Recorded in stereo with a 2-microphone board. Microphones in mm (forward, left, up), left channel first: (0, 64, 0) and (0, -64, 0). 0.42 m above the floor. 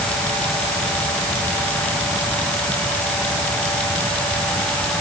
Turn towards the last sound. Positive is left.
No sound to turn to.